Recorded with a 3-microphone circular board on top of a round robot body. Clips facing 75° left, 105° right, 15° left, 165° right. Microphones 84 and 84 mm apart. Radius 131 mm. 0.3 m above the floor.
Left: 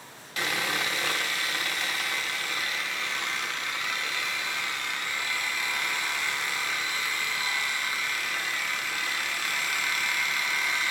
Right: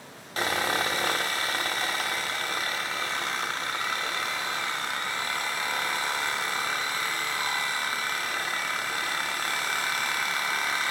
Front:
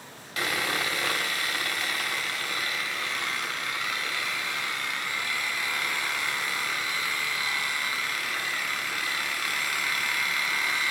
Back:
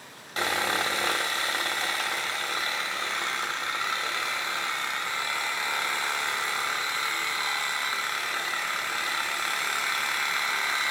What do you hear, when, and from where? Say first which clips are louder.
0.4 s sawing: right 3 dB, back 2 dB; 125° right, 1.2 m